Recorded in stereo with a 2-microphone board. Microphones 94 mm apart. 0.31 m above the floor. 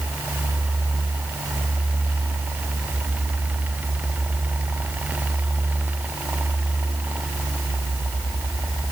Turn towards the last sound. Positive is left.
No sound to turn to.